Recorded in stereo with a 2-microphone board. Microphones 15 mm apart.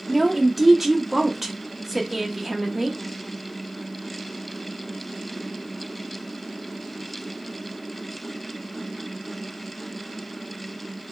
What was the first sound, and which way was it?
A woman speaking, 10° right (ahead or behind).